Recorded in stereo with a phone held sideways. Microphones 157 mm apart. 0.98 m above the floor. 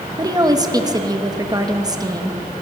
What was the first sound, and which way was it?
A woman speaking, 25° right (ahead or behind).